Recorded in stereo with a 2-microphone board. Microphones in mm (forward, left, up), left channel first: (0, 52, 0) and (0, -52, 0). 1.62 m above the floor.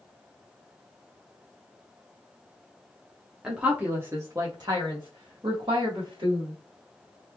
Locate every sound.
3.4 s a woman speaking: 10° right (ahead or behind), 0.9 m; by 6.5 s 55° right (ahead or behind), 1.5 m